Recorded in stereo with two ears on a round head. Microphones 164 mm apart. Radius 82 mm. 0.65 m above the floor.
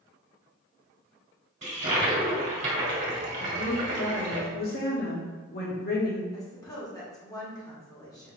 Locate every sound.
1.6 s a toilet flushing: 40° right (ahead or behind), 1.6 m
3.4 s a woman speaking: 50° left (ahead or behind), 1.0 m
6.3 s a woman speaking: 20° left (ahead or behind), 1.3 m